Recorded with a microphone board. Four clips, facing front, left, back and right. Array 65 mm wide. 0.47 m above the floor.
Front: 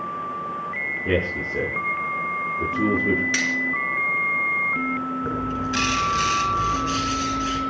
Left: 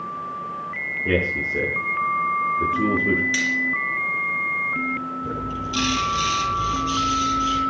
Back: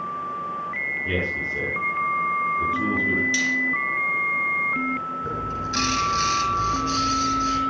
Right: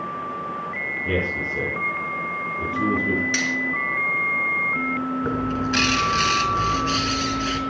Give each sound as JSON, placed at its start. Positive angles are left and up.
{"t": 1.1, "sound": "a man speaking", "azimuth_deg": 45, "distance_m": 8.5}
{"t": 3.3, "sound": "cutlery clinking", "azimuth_deg": -15, "distance_m": 4.0}
{"t": 5.2, "sound": "a bird", "azimuth_deg": -75, "distance_m": 3.5}